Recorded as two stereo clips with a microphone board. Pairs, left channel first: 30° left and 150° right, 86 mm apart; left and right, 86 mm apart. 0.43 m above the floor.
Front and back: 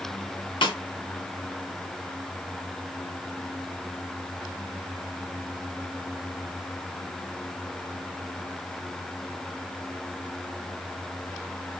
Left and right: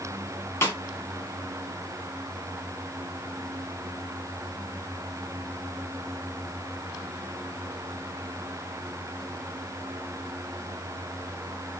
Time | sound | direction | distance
0.6 | a snare drum | 30° left | 1.2 m